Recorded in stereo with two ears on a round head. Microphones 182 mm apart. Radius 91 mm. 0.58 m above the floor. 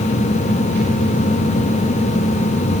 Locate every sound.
Only background noise.